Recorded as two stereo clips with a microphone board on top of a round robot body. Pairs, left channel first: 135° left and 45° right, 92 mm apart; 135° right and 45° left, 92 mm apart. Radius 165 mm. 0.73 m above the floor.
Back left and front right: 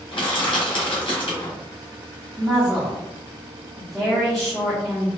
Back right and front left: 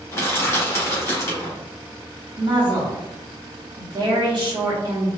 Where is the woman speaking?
45° left, 0.9 m.